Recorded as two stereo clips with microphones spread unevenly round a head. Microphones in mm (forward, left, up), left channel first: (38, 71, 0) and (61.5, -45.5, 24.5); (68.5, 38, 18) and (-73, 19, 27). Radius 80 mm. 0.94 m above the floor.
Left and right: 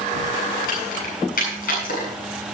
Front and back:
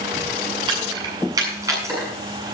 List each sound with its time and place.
0.7 s keys jangling: 130° left, 7.5 m; by 2.1 s 115° left, 7.5 m